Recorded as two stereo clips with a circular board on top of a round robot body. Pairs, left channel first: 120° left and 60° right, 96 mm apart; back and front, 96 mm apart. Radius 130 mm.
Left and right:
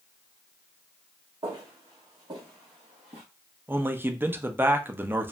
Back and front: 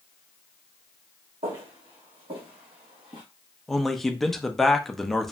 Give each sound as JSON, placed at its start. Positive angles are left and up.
{"t": 1.4, "sound": "footsteps", "azimuth_deg": -15, "distance_m": 1.6}
{"t": 3.7, "sound": "a man speaking", "azimuth_deg": -95, "distance_m": 0.6}